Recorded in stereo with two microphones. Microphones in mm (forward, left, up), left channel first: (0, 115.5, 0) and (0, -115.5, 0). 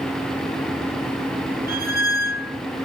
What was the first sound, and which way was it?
A squeak, 40° right (ahead or behind).